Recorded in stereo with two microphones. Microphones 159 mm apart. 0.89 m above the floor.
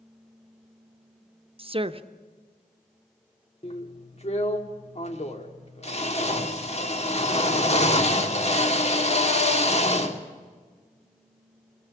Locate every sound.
1.6 s a woman speaking: 35° right (ahead or behind), 0.8 m
3.6 s a drill: 45° left (ahead or behind), 1.5 m